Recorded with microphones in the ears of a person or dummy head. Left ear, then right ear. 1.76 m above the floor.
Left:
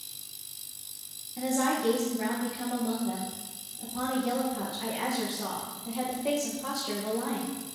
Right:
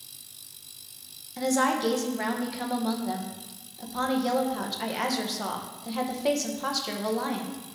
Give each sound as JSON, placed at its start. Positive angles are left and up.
{"t": 1.4, "sound": "a woman speaking", "side_deg": -60, "distance_m": 1.5}